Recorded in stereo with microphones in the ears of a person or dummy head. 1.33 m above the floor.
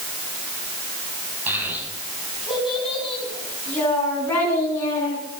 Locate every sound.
1.5 s a child speaking: 15° right (ahead or behind), 5.5 m; by 5.2 s 20° left (ahead or behind), 8 m